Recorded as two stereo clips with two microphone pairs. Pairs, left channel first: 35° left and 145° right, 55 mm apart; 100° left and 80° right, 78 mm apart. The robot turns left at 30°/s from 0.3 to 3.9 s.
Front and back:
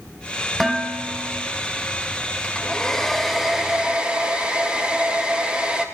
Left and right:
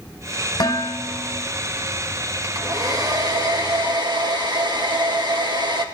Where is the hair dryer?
30° right, 1.8 m; by 5.8 s 75° right, 1.8 m.